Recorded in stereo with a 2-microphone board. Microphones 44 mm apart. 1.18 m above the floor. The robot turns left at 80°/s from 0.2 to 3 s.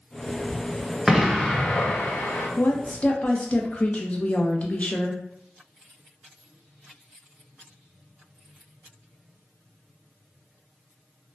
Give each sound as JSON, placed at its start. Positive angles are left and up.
{"t": 1.1, "sound": "an explosion", "azimuth_deg": -165, "distance_m": 0.5}
{"t": 2.6, "sound": "a woman speaking", "azimuth_deg": 65, "distance_m": 0.6}